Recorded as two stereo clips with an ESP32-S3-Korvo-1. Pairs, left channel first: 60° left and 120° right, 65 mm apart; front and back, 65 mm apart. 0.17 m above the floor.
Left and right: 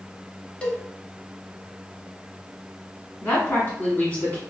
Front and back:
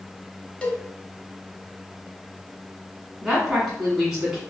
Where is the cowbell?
35° left, 0.7 m.